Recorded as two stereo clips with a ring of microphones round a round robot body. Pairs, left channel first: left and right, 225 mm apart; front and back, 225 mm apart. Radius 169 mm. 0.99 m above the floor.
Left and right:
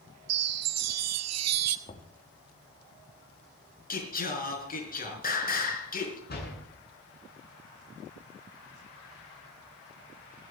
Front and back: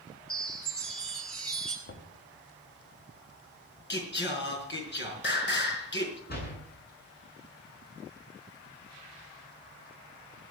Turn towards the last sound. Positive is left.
turn(degrees=45)